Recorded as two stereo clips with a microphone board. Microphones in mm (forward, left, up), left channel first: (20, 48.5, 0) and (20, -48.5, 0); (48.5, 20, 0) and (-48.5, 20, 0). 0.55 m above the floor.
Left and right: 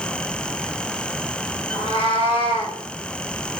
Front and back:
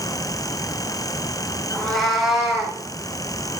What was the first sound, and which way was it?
A cat meowing, 80° left.